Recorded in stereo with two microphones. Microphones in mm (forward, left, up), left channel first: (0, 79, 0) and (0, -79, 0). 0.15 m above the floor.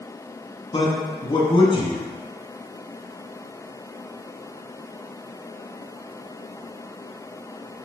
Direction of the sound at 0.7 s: 30° left (ahead or behind).